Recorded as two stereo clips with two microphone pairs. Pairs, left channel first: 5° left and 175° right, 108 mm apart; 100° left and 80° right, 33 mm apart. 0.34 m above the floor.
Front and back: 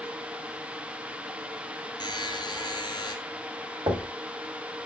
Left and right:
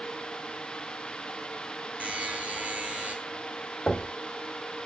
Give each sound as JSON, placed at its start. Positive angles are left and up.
{"t": 2.0, "sound": "a buzzer", "azimuth_deg": -40, "distance_m": 1.3}
{"t": 3.9, "sound": "knocking", "azimuth_deg": 155, "distance_m": 1.1}